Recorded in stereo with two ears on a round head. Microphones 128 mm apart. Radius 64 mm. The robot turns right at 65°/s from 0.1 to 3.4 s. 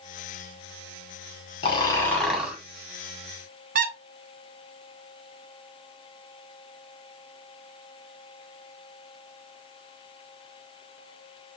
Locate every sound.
1.6 s snoring: 135° left, 1.2 m; by 2.6 s 160° right, 1.2 m
3.8 s a squeak: 55° right (ahead or behind), 0.6 m